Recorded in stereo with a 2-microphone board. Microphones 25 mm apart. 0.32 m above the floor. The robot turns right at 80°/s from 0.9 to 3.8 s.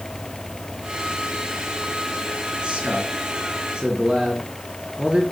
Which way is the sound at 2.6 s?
45° right (ahead or behind).